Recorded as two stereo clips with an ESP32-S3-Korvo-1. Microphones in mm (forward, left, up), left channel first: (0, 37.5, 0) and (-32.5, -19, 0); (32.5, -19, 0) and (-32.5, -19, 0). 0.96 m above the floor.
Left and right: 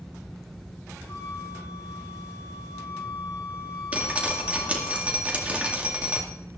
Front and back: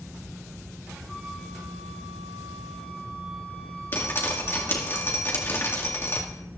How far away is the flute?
About 8 m.